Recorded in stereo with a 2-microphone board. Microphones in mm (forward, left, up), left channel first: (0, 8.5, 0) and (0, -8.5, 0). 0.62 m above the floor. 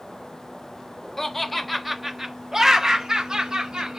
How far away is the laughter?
About 0.9 m.